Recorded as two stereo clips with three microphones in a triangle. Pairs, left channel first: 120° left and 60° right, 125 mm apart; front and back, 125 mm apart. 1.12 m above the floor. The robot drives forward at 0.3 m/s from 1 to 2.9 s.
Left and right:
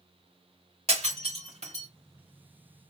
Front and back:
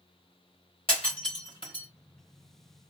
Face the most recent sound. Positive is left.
turn(degrees=-50)